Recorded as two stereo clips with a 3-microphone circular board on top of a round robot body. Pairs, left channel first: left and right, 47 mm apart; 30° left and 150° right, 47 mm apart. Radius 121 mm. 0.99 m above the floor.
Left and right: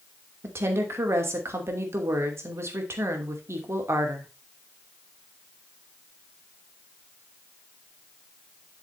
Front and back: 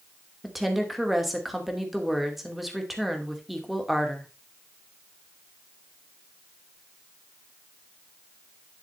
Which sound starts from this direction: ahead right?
A woman speaking, at 0.4 s.